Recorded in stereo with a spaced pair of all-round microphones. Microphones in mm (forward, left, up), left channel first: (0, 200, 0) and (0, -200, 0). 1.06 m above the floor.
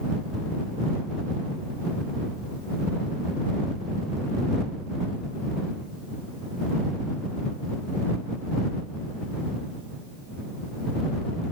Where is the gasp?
No gasp in this recording.